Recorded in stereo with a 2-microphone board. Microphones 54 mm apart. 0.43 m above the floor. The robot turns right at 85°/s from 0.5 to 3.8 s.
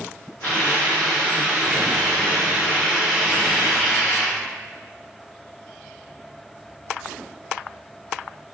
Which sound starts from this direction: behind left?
A hiss, at 0.4 s.